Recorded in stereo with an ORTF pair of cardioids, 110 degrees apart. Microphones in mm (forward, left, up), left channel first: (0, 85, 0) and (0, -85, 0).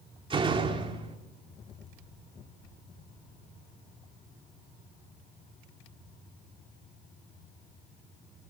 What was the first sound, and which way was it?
A door slam, 30° right.